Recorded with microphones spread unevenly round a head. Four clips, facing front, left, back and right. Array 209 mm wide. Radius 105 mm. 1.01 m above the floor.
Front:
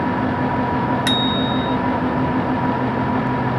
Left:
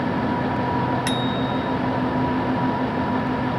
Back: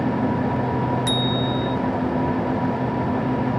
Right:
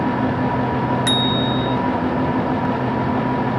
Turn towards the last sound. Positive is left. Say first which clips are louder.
# right 3 dB, front 3 dB
turn(degrees=-35)